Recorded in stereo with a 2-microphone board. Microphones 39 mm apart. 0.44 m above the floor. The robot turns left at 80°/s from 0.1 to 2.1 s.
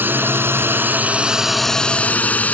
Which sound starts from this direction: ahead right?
A drone, at 0.0 s.